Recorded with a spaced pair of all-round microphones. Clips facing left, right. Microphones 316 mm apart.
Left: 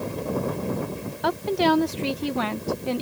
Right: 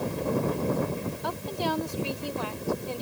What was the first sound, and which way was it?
A woman speaking, 80° left.